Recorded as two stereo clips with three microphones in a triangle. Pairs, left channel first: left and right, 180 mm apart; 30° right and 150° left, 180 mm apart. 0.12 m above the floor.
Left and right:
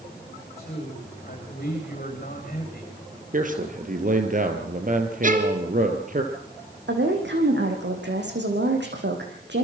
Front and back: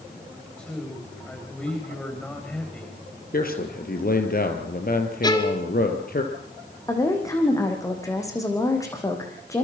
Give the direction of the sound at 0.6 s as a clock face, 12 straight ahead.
10 o'clock.